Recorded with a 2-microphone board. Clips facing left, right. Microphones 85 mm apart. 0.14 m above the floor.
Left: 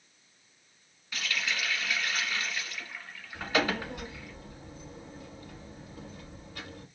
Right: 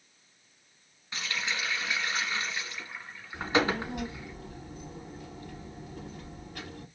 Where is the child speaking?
65° right (ahead or behind), 2 m.